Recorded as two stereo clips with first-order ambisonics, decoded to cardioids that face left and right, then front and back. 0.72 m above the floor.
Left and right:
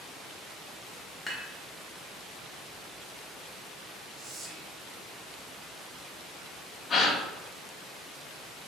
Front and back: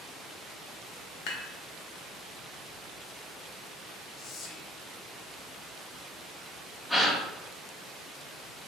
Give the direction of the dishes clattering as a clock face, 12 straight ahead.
12 o'clock.